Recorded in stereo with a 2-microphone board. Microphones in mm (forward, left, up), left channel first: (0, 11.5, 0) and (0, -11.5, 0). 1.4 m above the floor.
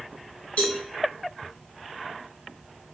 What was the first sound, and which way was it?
A cowbell, 70° left (ahead or behind).